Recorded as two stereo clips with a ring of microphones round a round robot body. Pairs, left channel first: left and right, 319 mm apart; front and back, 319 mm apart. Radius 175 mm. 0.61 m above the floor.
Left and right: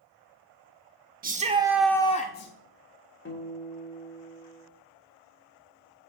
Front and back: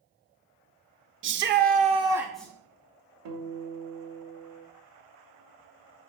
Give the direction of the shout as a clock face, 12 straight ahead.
5 o'clock.